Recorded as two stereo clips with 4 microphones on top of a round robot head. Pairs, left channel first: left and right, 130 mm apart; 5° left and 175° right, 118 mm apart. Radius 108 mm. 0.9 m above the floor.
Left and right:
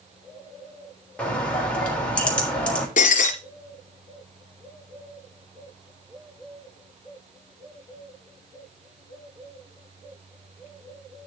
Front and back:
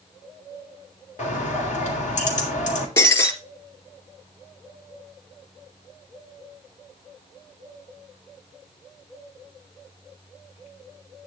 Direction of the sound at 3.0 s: 70° left.